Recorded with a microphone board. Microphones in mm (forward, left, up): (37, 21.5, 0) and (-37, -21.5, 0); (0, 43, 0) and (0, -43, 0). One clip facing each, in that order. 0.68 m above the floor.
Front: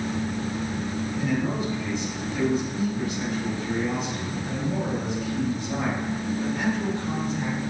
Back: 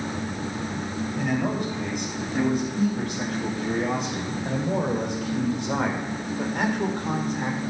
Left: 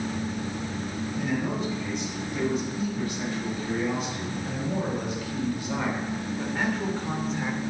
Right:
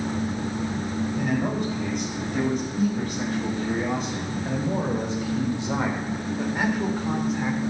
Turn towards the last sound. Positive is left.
turn(degrees=180)